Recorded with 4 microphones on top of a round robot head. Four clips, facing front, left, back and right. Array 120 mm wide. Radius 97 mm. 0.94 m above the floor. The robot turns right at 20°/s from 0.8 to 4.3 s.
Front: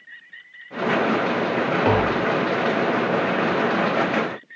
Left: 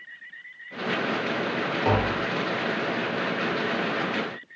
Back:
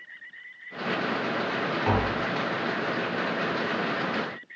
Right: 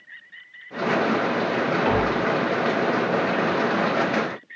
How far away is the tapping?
About 1.3 m.